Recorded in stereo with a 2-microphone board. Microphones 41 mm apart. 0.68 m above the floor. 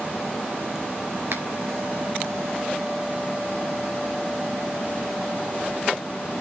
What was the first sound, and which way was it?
A finger snap, 75° right (ahead or behind).